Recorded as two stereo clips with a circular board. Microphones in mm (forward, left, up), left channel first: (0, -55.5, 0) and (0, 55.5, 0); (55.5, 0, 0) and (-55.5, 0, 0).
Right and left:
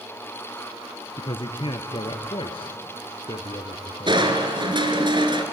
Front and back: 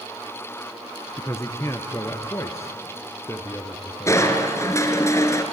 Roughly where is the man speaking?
Ahead right.